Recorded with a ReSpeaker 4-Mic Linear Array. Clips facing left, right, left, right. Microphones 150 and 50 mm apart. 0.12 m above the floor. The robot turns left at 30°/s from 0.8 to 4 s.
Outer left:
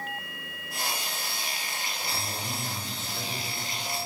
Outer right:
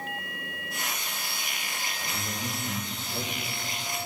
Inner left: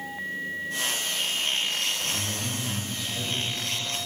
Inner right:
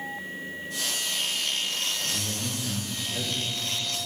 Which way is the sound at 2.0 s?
40° right.